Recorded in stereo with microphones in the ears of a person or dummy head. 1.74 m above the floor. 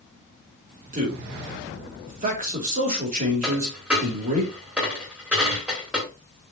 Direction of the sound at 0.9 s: 45° right (ahead or behind).